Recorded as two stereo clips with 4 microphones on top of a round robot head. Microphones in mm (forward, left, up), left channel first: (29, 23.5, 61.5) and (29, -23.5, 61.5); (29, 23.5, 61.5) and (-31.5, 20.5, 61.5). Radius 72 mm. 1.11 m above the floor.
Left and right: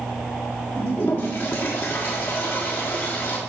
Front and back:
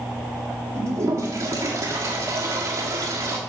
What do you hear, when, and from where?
0.8 s a toilet flushing: 145° left, 1.4 m